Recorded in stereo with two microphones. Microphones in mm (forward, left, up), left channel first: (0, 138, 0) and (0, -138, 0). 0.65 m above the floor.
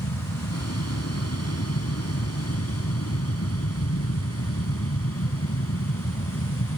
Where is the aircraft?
65° left (ahead or behind); by 6.8 s 50° left (ahead or behind).